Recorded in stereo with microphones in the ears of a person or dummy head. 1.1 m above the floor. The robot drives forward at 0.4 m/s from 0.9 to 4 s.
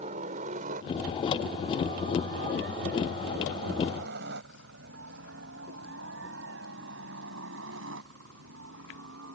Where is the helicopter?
35° right (ahead or behind); by 9.4 s 70° right (ahead or behind).